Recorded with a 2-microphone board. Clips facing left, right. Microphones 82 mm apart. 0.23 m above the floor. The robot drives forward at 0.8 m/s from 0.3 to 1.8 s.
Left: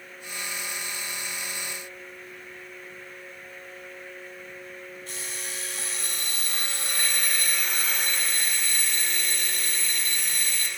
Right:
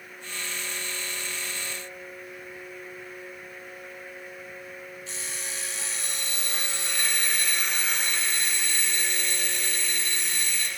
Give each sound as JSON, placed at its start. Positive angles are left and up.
{"t": 5.1, "sound": "an alarm clock", "side_deg": 45, "distance_m": 2.5}